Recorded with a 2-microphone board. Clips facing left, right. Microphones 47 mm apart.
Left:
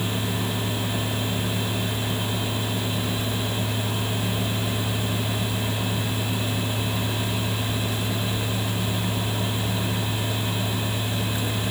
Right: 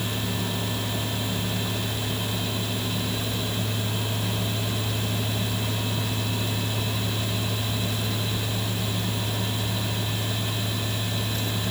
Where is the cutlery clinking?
No cutlery clinking in this recording.